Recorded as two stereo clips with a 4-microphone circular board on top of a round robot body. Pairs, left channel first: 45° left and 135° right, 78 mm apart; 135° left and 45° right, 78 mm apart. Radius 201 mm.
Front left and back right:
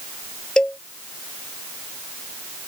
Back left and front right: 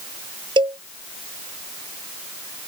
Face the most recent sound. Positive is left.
turn(degrees=-35)